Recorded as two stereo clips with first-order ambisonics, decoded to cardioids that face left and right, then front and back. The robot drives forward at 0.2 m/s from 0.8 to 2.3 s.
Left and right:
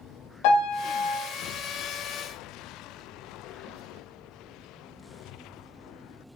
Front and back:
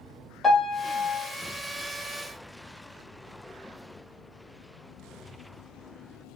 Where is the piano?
90° left, 0.9 m; by 1.3 s 95° left, 0.9 m.